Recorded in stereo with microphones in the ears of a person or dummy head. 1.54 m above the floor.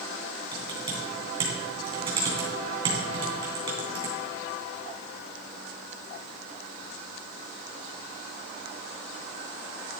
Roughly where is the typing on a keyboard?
Right.